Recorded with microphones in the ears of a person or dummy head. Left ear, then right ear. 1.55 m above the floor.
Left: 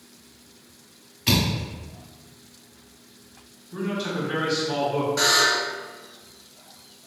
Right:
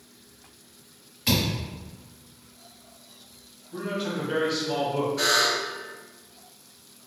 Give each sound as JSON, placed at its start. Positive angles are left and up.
{"t": 1.3, "sound": "a thud", "side_deg": -15, "distance_m": 1.9}
{"t": 3.7, "sound": "a man speaking", "side_deg": 15, "distance_m": 1.5}
{"t": 5.2, "sound": "a buzzer", "side_deg": 75, "distance_m": 1.6}